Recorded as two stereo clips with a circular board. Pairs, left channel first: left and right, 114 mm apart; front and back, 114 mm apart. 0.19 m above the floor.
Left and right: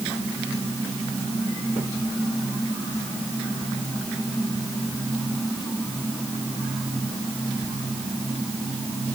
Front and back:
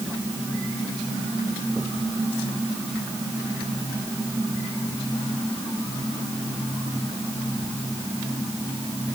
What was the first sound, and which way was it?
Only background noise.